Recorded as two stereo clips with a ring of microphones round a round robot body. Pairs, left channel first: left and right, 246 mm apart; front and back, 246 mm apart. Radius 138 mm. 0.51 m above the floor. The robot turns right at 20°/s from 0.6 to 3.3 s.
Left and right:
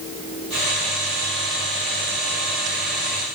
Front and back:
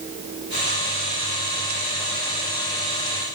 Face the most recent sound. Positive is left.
No sound to turn to.